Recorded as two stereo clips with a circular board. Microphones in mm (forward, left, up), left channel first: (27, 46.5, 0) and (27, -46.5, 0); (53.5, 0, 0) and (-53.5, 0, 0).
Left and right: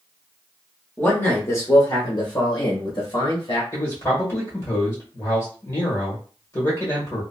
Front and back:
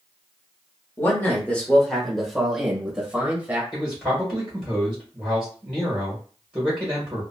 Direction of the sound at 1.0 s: 40° left.